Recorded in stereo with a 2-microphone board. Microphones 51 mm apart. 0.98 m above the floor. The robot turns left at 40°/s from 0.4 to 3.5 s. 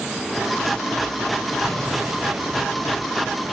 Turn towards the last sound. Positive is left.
turn(degrees=-65)